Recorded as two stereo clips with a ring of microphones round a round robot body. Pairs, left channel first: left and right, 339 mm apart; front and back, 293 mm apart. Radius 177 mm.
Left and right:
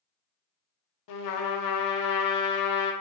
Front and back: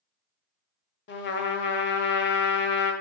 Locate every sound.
1.1 s a trumpet: 55° left, 0.7 m